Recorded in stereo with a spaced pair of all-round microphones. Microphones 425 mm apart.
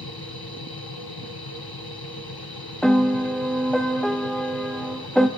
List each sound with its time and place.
0.0 s a machine running: 60° left (ahead or behind), 1.1 m
2.8 s a piano: centre (ahead or behind), 0.6 m